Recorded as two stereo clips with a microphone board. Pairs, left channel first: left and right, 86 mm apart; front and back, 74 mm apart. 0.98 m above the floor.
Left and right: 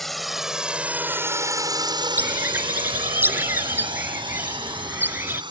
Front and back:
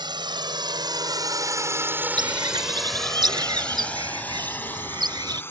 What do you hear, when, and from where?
0.0 s a drone: straight behind; by 5.5 s 60° right
2.2 s a bird: 155° right